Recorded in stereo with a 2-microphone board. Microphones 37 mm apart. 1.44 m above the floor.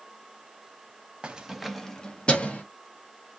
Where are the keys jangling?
25° right (ahead or behind), 0.5 m; by 2.6 s 35° left (ahead or behind), 0.8 m.